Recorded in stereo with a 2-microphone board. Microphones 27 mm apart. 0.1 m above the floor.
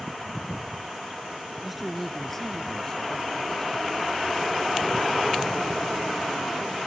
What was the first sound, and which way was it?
A man speaking, 10° right (ahead or behind).